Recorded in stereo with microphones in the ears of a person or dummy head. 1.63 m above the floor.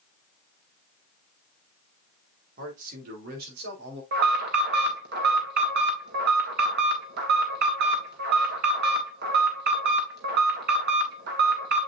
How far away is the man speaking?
About 4 m.